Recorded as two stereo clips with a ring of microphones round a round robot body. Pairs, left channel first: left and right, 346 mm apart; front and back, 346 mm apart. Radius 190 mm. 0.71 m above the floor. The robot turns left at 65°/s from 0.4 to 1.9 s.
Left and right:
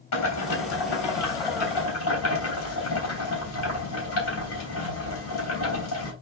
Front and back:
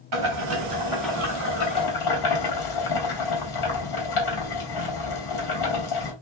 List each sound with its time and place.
0.1 s boiling: 130° left, 4.5 m; by 6.1 s 35° left, 4.5 m